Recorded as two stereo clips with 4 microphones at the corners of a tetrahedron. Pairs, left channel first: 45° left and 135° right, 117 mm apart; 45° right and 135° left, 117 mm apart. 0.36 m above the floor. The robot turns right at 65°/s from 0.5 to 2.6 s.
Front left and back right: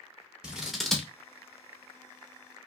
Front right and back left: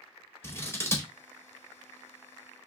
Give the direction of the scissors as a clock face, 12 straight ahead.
2 o'clock.